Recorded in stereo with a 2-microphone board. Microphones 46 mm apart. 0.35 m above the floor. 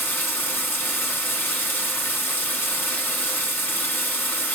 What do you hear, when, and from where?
0.0 s running water: 55° left (ahead or behind), 2.5 m